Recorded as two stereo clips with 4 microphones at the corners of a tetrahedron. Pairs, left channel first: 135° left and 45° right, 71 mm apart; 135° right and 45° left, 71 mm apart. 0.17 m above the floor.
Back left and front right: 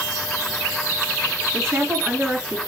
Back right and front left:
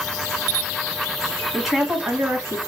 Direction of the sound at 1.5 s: 45° right.